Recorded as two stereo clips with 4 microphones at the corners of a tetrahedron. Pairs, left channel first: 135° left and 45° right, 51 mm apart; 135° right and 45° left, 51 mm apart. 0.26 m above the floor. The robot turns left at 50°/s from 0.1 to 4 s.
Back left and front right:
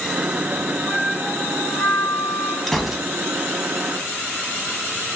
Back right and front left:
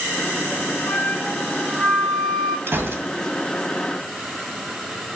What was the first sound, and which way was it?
A flute, 155° right.